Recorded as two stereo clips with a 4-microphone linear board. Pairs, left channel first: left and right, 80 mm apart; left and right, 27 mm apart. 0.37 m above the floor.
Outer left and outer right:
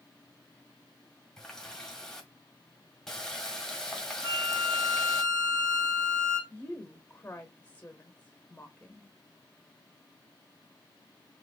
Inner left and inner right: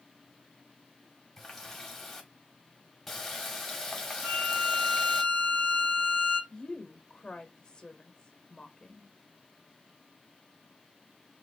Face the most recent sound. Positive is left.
turn(degrees=20)  # may be behind; listen again after turning